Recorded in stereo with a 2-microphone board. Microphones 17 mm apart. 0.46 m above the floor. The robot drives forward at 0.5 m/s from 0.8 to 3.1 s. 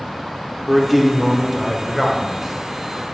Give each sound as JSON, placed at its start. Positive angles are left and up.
{"t": 0.7, "sound": "a man speaking", "side_deg": 0, "distance_m": 0.8}